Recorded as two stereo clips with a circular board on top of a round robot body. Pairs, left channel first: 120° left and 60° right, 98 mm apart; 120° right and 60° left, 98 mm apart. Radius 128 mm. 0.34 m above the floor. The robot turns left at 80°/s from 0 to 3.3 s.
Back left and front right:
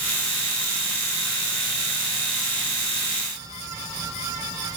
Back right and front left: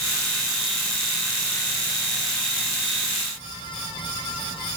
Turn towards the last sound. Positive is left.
No sound to turn to.